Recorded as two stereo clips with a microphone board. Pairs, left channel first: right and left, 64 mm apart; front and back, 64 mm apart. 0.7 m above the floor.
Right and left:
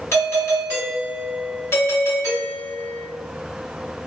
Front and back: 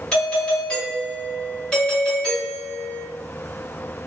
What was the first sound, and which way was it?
A doorbell, 70° right.